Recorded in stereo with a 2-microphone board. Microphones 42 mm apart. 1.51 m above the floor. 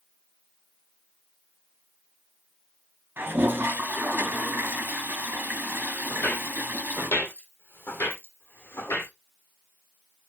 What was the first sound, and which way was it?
A toilet flushing, 45° right (ahead or behind).